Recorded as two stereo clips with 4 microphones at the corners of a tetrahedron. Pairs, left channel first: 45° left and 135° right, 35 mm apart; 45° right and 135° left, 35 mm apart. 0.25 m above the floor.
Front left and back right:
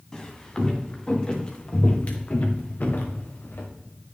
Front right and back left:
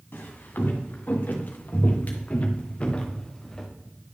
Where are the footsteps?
25° right, 2.5 m; by 3.7 s 35° left, 1.6 m.